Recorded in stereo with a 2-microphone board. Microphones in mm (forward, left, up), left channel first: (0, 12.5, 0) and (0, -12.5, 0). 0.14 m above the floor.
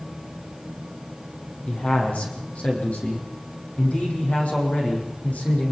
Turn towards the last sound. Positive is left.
turn(degrees=75)  # may be behind; listen again after turning